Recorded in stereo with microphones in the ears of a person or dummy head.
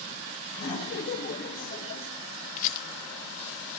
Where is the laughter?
70° left (ahead or behind), 6.5 m; by 2.1 s 60° left (ahead or behind), 7.5 m.